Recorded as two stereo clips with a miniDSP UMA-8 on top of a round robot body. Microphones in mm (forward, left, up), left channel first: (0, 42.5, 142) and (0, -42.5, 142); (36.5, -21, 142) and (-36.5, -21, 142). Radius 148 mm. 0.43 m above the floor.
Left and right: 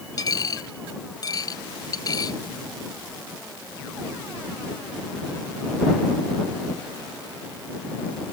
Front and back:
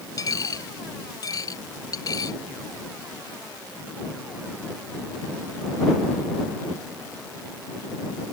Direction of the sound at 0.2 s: 45° left.